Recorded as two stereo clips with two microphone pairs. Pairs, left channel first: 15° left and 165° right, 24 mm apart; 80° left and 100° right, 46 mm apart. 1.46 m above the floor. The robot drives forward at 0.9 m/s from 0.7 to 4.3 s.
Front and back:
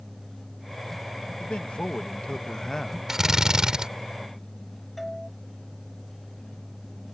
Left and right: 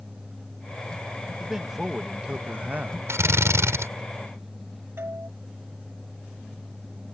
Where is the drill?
90° right; by 3.9 s 105° right.